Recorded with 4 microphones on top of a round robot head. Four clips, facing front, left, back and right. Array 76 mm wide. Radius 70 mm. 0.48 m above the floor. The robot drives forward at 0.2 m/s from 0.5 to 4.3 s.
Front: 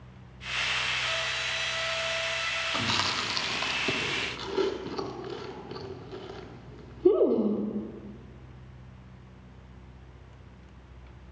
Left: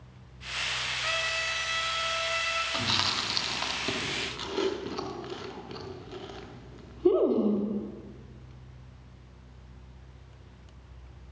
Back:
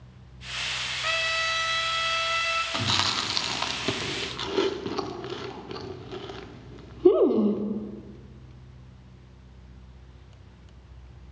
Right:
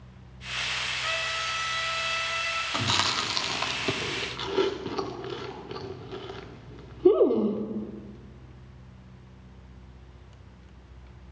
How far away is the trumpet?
About 0.8 m.